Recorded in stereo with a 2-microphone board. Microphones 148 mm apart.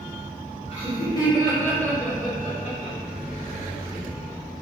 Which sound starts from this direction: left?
Laughter, at 0.7 s.